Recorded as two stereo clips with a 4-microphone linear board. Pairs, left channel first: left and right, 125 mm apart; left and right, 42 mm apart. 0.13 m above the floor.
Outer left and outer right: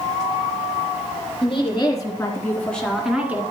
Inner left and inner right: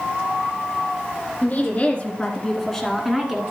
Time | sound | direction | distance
1.4 | a woman speaking | 40° left (ahead or behind) | 2.5 m